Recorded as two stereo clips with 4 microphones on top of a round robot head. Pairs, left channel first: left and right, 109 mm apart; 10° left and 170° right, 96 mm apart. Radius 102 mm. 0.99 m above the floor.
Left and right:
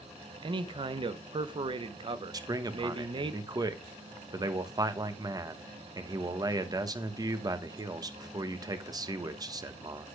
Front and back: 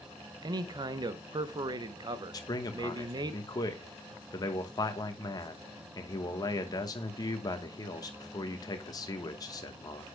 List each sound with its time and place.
0.4 s a man speaking: 130° right, 0.7 m
2.3 s a man speaking: 35° right, 1.1 m